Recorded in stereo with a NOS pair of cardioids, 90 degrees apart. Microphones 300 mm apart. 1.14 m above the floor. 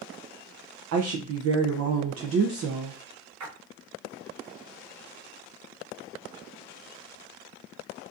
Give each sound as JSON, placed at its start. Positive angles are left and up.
{"t": 0.9, "sound": "a woman speaking", "azimuth_deg": -55, "distance_m": 0.6}
{"t": 3.4, "sound": "a splash", "azimuth_deg": -65, "distance_m": 1.3}